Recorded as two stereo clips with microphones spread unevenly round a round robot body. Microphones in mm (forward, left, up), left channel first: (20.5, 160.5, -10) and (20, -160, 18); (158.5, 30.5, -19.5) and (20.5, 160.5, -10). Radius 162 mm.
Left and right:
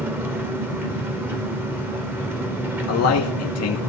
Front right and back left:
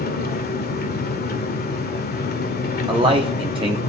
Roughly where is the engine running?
Ahead.